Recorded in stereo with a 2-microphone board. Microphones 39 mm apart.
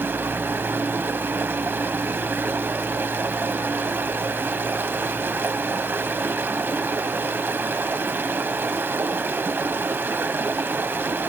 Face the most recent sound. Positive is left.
turn(degrees=-70)  # may be behind; listen again after turning